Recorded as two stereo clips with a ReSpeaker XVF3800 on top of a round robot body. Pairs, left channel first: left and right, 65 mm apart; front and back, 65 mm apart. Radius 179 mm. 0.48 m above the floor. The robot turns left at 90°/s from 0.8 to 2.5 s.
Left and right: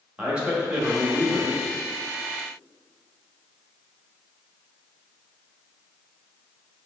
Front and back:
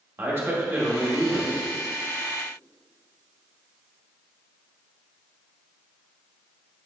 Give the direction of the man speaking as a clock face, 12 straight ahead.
5 o'clock.